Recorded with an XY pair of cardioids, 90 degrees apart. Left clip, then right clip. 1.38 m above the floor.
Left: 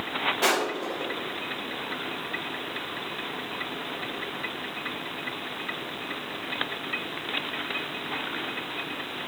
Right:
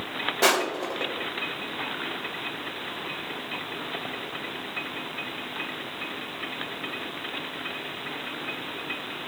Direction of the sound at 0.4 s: 40° right.